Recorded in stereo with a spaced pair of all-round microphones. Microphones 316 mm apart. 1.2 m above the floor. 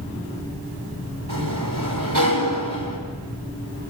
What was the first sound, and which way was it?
A sliding door, 90° right.